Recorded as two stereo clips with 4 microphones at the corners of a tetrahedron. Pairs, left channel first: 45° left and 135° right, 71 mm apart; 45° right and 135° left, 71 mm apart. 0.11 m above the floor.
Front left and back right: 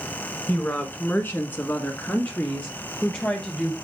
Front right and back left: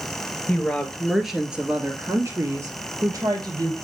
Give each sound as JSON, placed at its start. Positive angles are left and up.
{"t": 0.5, "sound": "a woman speaking", "azimuth_deg": 5, "distance_m": 1.5}